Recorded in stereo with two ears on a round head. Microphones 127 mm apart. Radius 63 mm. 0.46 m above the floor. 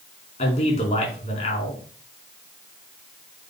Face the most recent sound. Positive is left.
turn(degrees=50)  # may be behind; listen again after turning